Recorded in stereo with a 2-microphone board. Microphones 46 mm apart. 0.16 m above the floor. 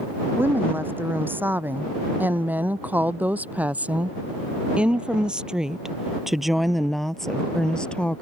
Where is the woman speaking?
50° right (ahead or behind); by 8.2 s 25° left (ahead or behind).